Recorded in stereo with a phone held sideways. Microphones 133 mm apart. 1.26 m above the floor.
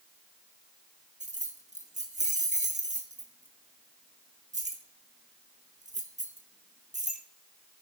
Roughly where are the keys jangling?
Right.